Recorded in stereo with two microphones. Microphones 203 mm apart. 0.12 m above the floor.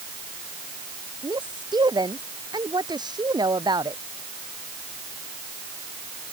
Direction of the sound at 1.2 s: 20° right (ahead or behind).